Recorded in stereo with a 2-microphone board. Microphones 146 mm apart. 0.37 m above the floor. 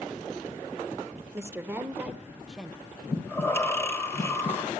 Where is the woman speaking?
20° right (ahead or behind), 0.8 m; by 3.0 s centre (ahead or behind), 1.5 m.